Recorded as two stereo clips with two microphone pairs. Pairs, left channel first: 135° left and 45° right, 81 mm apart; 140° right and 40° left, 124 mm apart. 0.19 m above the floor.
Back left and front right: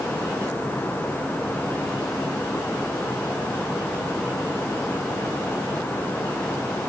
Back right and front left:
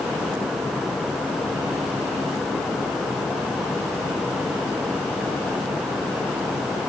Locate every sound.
Only background noise.